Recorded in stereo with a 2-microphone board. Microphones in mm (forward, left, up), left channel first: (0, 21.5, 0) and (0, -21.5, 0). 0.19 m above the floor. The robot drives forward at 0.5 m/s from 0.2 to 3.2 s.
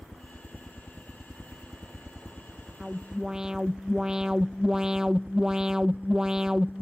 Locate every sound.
0.0 s a helicopter: 15° left (ahead or behind); by 6.8 s 50° right (ahead or behind)
2.8 s an alarm: 15° right (ahead or behind)